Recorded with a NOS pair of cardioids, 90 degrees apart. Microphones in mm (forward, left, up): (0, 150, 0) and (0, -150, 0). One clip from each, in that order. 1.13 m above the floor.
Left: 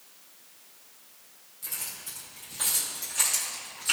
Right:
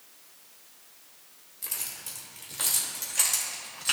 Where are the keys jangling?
50° right, 2 m; by 3.9 s 35° right, 3.5 m.